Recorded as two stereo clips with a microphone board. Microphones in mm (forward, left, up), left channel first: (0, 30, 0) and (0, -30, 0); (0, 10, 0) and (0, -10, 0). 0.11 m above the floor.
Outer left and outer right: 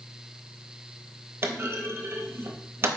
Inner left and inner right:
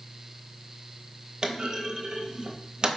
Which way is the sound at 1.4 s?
40° right (ahead or behind).